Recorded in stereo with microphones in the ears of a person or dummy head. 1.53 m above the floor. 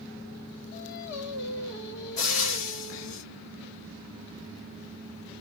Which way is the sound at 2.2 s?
40° left (ahead or behind).